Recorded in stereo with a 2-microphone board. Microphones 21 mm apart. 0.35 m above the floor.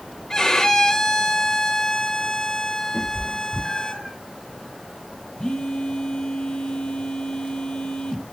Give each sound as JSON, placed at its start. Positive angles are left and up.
{"t": 0.3, "sound": "a violin", "side_deg": 30, "distance_m": 1.0}
{"t": 2.9, "sound": "a cat meowing", "side_deg": 40, "distance_m": 4.5}
{"t": 5.4, "sound": "a phone buzzing", "side_deg": 40, "distance_m": 1.6}